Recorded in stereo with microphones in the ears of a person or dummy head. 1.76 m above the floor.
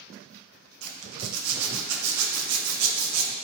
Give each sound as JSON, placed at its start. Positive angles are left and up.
{"t": 0.8, "sound": "a zipper", "side_deg": -85, "distance_m": 1.3}